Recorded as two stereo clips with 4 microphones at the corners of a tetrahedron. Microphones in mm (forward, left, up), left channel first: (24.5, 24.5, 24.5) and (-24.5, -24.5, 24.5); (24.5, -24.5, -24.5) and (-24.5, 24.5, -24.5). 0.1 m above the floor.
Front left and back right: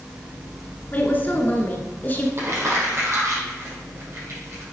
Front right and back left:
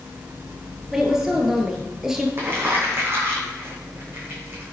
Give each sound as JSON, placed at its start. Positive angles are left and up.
{"t": 0.9, "sound": "a woman speaking", "azimuth_deg": 60, "distance_m": 1.9}
{"t": 2.4, "sound": "crumpling", "azimuth_deg": -175, "distance_m": 5.0}